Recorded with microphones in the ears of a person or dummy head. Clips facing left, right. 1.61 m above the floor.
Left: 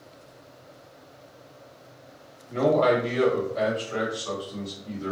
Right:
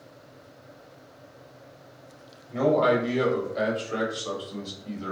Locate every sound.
2.5 s a man speaking: centre (ahead or behind), 1.4 m; by 5.1 s 60° right (ahead or behind), 1.3 m